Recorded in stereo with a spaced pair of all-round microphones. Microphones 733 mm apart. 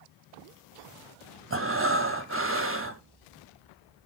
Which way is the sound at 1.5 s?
20° right (ahead or behind).